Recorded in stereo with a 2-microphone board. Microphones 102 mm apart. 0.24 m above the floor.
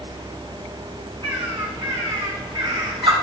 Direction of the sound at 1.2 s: 55° right (ahead or behind).